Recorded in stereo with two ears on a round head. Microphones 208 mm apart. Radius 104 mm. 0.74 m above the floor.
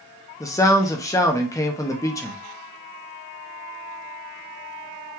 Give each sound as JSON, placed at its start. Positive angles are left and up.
{"t": 0.4, "sound": "a man speaking", "side_deg": 15, "distance_m": 0.6}